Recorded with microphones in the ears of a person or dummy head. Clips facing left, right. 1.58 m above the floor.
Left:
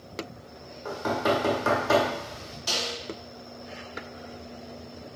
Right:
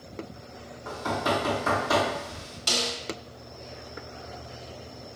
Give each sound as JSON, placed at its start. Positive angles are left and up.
{"t": 0.8, "sound": "knocking", "side_deg": 70, "distance_m": 1.3}
{"t": 2.7, "sound": "a snare drum", "side_deg": -10, "distance_m": 0.9}